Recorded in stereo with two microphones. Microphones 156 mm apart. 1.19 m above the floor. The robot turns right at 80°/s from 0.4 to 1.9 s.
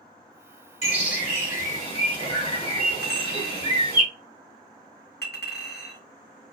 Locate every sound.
0.8 s a bird: 45° left (ahead or behind), 1.7 m; by 4.0 s 35° left (ahead or behind), 1.7 m
3.0 s a clink: 80° left, 1.1 m